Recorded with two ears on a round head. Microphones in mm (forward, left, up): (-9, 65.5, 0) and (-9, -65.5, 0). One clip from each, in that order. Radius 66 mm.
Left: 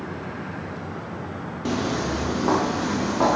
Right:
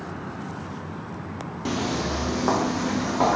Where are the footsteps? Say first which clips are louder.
Left 1 dB; 10° right (ahead or behind), 0.7 m; by 3.4 s 60° right (ahead or behind), 2.5 m.